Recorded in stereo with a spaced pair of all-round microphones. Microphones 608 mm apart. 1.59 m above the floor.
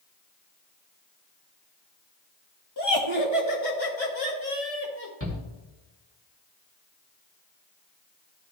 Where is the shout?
20° left (ahead or behind), 3 m.